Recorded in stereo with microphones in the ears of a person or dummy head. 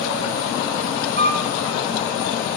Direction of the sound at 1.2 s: 60° right (ahead or behind).